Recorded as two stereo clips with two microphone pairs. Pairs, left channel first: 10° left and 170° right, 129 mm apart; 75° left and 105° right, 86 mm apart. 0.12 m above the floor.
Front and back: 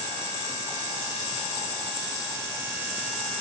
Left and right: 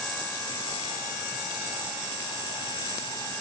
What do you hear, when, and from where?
Only background noise.